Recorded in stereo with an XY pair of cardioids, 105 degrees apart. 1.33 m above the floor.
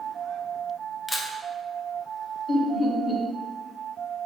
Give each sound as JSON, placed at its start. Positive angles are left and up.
{"t": 1.1, "sound": "a camera shutter", "azimuth_deg": 15, "distance_m": 0.6}
{"t": 2.5, "sound": "laughter", "azimuth_deg": 40, "distance_m": 1.4}